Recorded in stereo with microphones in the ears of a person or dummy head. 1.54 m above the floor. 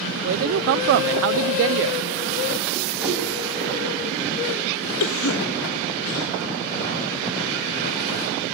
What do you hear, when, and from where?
0.2 s a man speaking: 80° right, 0.6 m
3.0 s a whoosh: 10° right (ahead or behind), 5.5 m
5.0 s a cough: 80° left, 0.9 m